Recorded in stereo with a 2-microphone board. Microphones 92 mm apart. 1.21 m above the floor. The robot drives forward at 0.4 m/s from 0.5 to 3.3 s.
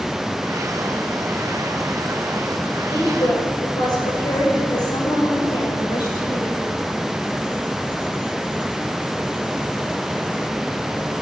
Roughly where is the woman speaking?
Left.